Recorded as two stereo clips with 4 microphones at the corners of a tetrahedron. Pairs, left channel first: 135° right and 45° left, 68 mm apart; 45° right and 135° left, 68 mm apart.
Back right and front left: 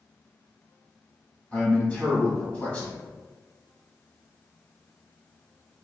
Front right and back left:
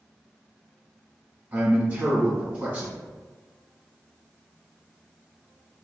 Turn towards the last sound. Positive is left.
turn(degrees=175)